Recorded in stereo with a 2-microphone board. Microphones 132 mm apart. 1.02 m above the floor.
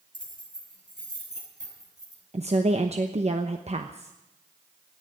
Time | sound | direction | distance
0.1 | keys jangling | 80° right | 9 m
2.3 | a woman speaking | 55° right (ahead or behind) | 0.9 m